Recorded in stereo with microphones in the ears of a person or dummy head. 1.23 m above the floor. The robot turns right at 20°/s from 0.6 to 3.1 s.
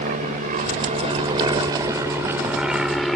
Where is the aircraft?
40° right (ahead or behind); by 3.2 s 5° right (ahead or behind).